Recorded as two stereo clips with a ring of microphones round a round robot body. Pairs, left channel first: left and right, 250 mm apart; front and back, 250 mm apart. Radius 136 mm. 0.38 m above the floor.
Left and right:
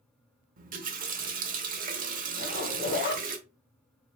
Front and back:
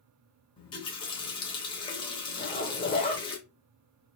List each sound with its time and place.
0.6 s a running tap: 60° right, 0.8 m
2.4 s a zipper: 50° left, 0.8 m